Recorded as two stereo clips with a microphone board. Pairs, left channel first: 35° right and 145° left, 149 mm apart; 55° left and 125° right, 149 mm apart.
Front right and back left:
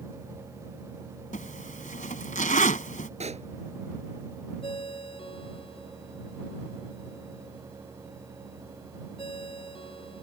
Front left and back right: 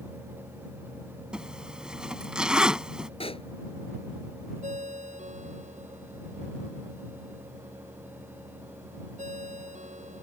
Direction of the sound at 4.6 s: 90° right.